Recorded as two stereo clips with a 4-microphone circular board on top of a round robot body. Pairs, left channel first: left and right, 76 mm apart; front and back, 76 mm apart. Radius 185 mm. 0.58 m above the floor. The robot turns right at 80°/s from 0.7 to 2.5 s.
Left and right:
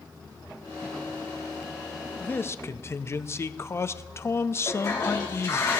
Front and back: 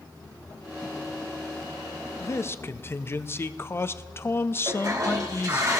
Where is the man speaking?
25° left, 0.9 m; by 5.7 s 45° left, 0.9 m.